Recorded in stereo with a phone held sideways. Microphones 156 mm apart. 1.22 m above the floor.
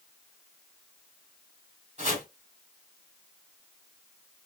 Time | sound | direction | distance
2.0 | chopping | 50° right (ahead or behind) | 2 m